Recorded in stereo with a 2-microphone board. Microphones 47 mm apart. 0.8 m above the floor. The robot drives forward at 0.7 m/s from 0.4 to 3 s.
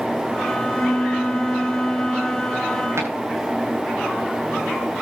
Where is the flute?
45° left (ahead or behind), 0.6 m; by 2.9 s 10° left (ahead or behind), 1.9 m.